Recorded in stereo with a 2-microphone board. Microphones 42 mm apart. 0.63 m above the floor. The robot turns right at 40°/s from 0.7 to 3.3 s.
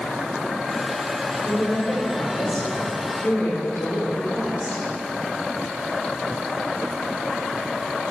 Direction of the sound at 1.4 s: 40° left.